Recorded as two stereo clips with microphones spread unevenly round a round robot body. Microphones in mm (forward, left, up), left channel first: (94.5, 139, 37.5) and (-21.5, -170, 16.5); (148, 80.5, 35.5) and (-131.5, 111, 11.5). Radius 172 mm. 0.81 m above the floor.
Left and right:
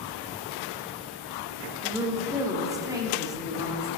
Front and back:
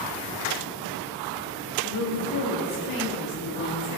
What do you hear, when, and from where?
1.8 s a woman speaking: 30° right, 1.4 m